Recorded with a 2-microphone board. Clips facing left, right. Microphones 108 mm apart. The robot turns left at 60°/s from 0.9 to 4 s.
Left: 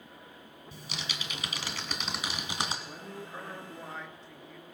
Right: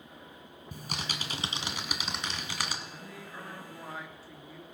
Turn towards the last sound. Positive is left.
turn(degrees=-5)